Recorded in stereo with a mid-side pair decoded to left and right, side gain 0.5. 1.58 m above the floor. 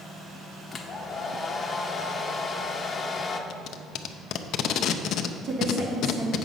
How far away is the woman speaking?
About 2.5 m.